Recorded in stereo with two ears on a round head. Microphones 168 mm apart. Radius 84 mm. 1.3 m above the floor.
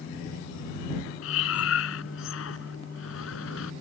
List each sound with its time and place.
1.2 s breathing: 75° left (ahead or behind)